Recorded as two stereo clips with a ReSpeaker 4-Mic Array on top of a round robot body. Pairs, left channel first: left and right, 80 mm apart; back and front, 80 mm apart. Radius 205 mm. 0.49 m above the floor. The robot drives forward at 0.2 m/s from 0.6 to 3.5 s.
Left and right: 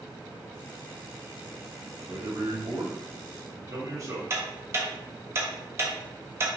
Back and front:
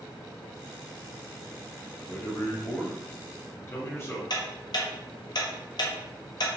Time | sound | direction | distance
2.0 | a man speaking | 110° right | 1.1 m
4.3 | ticking | 145° right | 0.7 m